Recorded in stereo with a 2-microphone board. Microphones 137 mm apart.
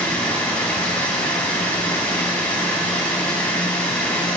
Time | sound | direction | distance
0.0 | running water | 10° left (ahead or behind) | 3.5 m